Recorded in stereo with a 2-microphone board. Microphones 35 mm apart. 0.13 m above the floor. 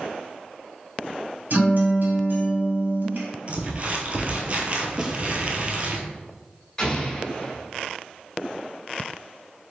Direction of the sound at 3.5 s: 35° right (ahead or behind).